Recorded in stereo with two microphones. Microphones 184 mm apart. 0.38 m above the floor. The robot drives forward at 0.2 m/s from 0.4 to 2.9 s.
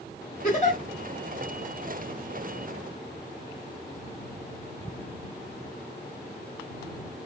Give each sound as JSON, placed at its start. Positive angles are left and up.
{"t": 0.4, "sound": "a giggle", "side_deg": 45, "distance_m": 2.0}